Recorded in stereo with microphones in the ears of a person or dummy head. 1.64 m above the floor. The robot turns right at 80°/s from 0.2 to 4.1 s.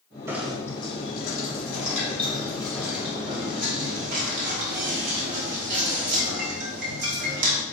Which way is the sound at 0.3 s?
20° right (ahead or behind).